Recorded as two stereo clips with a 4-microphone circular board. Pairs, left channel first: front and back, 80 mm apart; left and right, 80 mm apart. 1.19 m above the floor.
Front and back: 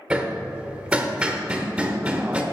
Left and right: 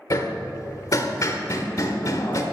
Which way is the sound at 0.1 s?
110° left.